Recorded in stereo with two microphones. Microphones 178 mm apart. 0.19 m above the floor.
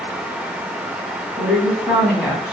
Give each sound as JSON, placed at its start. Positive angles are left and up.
{"t": 1.4, "sound": "a woman speaking", "side_deg": -5, "distance_m": 1.4}